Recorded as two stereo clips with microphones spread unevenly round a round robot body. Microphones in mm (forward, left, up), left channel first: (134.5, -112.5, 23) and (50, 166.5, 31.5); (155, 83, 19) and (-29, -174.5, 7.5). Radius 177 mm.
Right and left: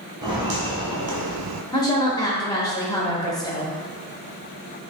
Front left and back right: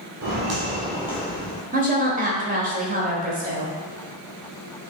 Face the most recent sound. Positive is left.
turn(degrees=-130)